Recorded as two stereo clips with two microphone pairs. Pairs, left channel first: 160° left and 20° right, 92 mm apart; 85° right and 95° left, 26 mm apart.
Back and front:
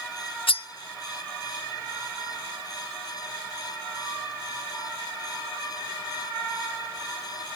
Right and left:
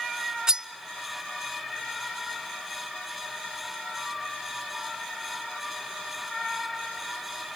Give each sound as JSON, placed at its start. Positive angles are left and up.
{"t": 0.5, "sound": "cutlery clinking", "azimuth_deg": 160, "distance_m": 0.7}